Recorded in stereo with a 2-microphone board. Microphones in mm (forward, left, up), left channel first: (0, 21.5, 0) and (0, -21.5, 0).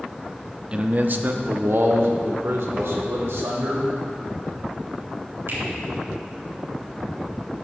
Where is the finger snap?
80° right, 3 m.